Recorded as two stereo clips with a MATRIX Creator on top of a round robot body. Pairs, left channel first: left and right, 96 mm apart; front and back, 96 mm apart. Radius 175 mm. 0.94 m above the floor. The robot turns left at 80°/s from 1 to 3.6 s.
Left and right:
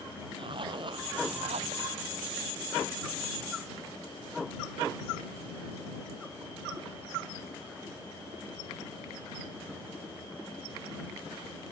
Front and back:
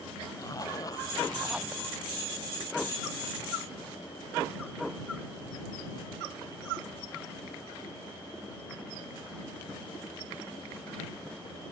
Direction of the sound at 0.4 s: 55° right.